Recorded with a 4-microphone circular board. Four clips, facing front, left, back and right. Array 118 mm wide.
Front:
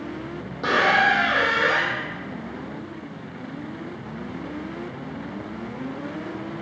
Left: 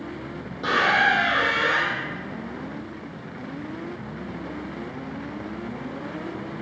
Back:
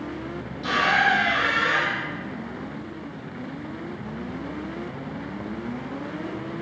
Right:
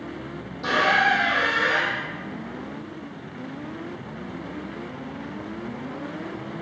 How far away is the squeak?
About 0.7 m.